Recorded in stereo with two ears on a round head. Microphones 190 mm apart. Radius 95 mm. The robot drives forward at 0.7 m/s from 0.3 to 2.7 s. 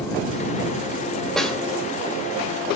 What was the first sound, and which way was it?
A snare drum, centre (ahead or behind).